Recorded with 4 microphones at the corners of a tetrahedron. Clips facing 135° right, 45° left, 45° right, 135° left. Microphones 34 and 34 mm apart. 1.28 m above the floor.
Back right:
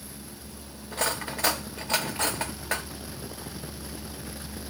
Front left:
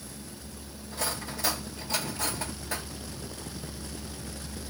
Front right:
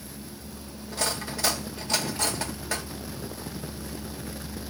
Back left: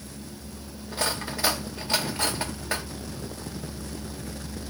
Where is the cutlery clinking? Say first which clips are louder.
Back right 5 dB, back left 1 dB; 155° right, 1.2 m.